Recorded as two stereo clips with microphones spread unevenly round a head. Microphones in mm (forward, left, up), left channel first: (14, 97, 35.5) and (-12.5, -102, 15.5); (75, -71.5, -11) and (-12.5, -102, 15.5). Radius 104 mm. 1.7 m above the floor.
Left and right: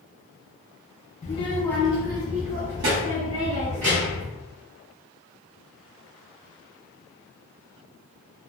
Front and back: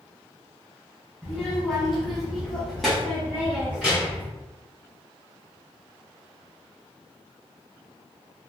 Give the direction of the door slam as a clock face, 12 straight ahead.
I don't hear a door slam.